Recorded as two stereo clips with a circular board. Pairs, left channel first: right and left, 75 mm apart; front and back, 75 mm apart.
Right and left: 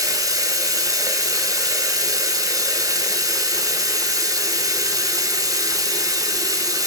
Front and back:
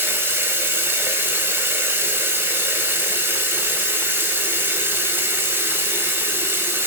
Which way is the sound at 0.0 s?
120° left.